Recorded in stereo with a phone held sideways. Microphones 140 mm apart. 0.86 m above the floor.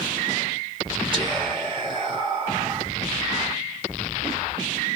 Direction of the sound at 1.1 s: 35° right (ahead or behind).